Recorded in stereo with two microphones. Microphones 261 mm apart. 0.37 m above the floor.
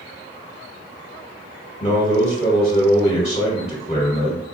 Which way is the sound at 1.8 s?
25° left (ahead or behind).